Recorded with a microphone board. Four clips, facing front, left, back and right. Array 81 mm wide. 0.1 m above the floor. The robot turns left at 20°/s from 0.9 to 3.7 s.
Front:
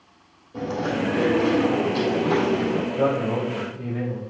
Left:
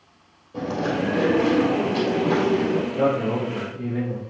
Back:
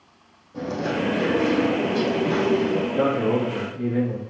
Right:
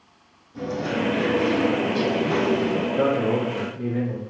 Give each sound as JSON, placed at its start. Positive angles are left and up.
{"t": 0.5, "sound": "chewing", "azimuth_deg": 75, "distance_m": 3.0}
{"t": 2.9, "sound": "a man speaking", "azimuth_deg": -165, "distance_m": 3.0}